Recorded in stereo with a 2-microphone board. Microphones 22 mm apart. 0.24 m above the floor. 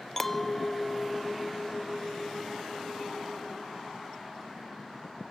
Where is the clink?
15° left (ahead or behind), 0.6 m.